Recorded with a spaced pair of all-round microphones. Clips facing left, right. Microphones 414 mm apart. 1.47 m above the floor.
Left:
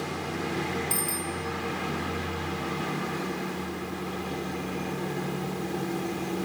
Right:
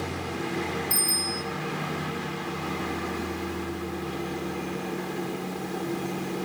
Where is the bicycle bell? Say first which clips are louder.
Even; 60° right (ahead or behind), 6.5 m.